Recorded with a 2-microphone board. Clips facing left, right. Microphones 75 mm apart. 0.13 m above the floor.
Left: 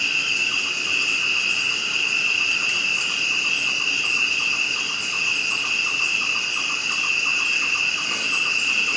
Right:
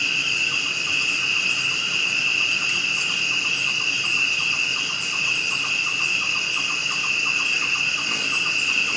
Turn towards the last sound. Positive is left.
turn(degrees=5)  # may be behind; listen again after turning